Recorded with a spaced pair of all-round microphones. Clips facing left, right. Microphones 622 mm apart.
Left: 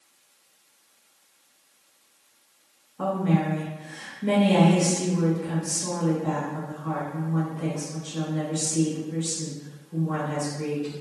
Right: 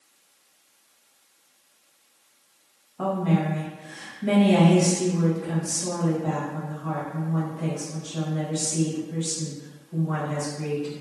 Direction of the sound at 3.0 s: 15° right (ahead or behind).